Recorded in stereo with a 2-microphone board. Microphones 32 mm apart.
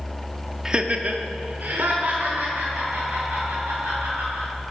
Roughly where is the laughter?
Centre.